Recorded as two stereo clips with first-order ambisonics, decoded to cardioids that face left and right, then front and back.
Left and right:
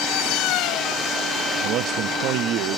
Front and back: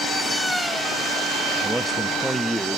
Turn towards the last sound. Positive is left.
turn(degrees=-95)